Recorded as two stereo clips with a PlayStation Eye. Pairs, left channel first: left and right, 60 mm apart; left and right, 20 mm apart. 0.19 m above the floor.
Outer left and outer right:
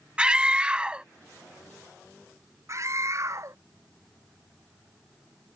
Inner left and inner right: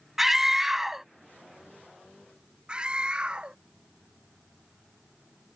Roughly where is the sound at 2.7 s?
Right.